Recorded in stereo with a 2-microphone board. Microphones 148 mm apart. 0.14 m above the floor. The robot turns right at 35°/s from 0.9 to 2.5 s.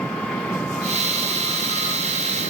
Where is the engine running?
5° left; by 2.5 s 65° left.